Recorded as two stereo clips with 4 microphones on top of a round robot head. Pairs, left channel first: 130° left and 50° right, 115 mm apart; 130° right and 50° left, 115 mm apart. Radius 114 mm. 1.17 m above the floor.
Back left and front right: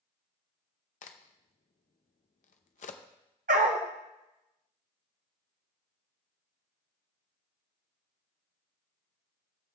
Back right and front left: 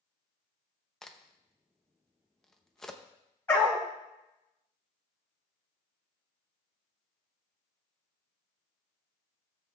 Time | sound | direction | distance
1.0 | a crack | 145° left | 0.6 m
3.5 | a dog barking | 55° right | 0.8 m